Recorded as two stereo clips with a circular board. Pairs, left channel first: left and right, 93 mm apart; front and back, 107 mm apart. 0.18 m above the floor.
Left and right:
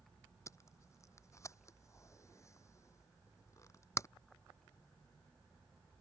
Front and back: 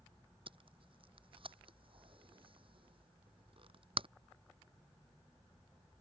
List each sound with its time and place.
0.5 s tape being pulled: 145° left